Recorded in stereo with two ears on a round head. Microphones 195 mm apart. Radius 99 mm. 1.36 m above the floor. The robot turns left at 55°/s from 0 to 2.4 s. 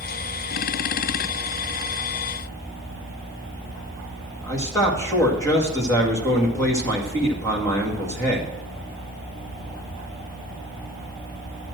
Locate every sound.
4.4 s a man speaking: 15° left (ahead or behind), 2.0 m